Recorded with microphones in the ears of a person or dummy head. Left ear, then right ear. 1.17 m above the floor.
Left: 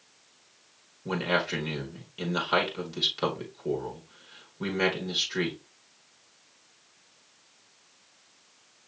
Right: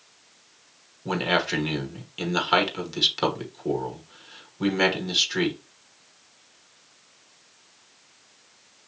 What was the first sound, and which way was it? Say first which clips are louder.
A man speaking: right 4 dB; 20° right (ahead or behind).